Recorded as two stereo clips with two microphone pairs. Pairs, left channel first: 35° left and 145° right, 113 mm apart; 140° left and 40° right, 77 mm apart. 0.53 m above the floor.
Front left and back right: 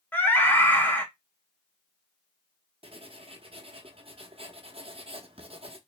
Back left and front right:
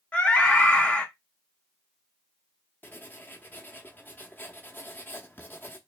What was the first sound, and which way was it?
A scream, 80° left.